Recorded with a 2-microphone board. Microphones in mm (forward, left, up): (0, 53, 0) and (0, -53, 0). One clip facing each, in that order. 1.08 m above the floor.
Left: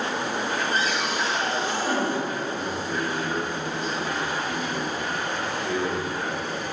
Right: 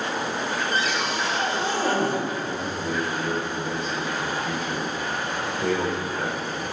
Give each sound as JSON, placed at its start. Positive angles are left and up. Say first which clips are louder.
{"t": 0.7, "sound": "a cupboard door", "louder": "even", "side_deg": -75, "distance_m": 3.0}
{"t": 2.4, "sound": "a man speaking", "louder": "right 1 dB", "side_deg": -65, "distance_m": 3.5}